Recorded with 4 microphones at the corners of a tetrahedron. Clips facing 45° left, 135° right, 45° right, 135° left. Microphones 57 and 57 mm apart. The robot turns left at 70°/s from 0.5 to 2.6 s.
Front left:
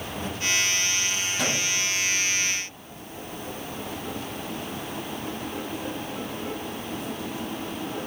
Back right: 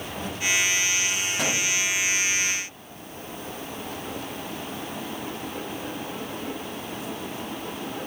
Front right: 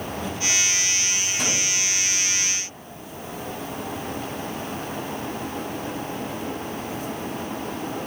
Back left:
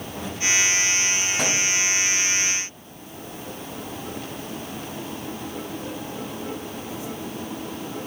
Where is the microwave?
150° left, 4.5 m; by 1.6 s 140° left, 4.5 m.